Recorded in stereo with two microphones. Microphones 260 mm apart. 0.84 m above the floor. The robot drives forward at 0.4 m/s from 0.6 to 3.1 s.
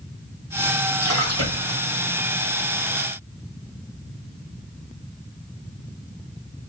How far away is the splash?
About 2.5 m.